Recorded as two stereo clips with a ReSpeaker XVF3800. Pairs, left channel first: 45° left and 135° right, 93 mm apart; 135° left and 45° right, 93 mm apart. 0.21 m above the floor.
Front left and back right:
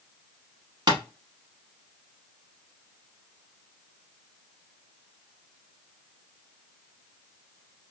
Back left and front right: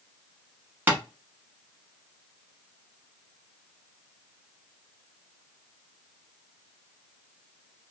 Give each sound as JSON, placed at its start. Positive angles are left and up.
{"t": 0.9, "sound": "tapping", "azimuth_deg": -110, "distance_m": 1.0}